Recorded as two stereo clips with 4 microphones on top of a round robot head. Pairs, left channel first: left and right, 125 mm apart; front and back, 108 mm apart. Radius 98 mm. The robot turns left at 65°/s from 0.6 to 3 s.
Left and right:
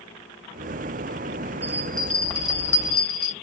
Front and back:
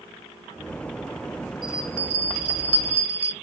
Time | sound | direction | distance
1.6 | a bell | 125° right | 1.0 m